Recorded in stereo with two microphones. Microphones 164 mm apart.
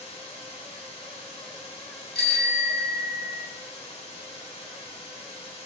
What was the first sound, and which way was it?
Running water, 40° left (ahead or behind).